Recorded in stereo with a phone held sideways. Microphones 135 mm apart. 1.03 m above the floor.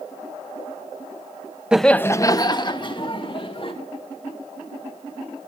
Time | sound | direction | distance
1.7 | laughter | 5° right (ahead or behind) | 0.5 m